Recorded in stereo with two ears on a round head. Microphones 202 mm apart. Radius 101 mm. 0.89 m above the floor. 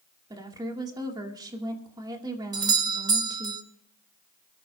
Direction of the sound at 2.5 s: 15° right (ahead or behind).